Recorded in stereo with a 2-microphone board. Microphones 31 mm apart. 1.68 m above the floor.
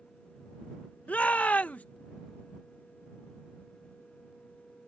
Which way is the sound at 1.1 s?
45° left (ahead or behind).